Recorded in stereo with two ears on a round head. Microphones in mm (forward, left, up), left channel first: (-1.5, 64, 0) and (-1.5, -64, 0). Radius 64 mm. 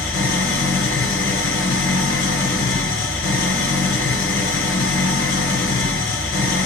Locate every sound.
0.0 s an engine running: 60° left (ahead or behind), 2.5 m